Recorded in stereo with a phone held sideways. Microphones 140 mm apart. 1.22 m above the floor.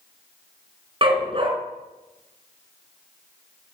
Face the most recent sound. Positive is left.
turn(degrees=-35)  # may be behind; listen again after turning